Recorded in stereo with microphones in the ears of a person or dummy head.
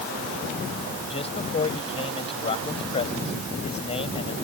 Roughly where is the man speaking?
Left.